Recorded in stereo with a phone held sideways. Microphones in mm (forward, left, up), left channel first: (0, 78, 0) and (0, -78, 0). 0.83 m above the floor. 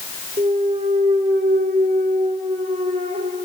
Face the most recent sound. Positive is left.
turn(degrees=-50)  # may be behind; listen again after turning